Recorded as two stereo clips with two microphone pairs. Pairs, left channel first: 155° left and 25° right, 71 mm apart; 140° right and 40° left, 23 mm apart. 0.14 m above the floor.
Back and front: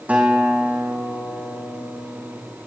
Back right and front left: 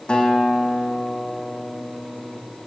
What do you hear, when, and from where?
0.1 s a guitar: 100° right, 4 m